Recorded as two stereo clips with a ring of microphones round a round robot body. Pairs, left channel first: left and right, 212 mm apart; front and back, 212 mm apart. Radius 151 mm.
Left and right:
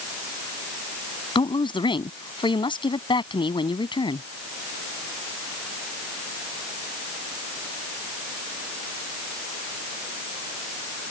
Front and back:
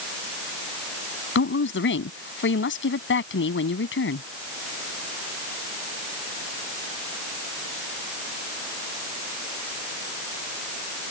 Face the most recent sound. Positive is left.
turn(degrees=25)